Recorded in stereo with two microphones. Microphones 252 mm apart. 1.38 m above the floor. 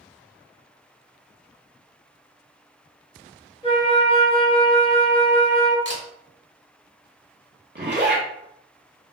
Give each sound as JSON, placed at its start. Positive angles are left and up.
{"t": 3.6, "sound": "a flute", "side_deg": 20, "distance_m": 0.9}
{"t": 5.8, "sound": "a camera shutter", "side_deg": 50, "distance_m": 1.3}
{"t": 7.8, "sound": "a zipper", "side_deg": -40, "distance_m": 1.0}